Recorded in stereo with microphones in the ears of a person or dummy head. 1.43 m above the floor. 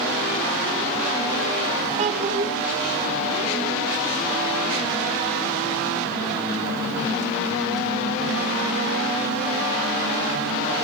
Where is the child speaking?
35° right (ahead or behind), 1.1 m.